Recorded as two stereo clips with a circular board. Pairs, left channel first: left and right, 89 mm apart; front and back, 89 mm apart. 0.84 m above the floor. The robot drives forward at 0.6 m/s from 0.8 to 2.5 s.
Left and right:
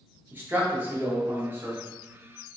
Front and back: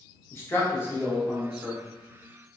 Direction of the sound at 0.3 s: 40° right.